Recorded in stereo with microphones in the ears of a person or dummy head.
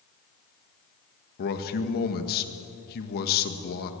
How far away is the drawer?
I don't hear a drawer.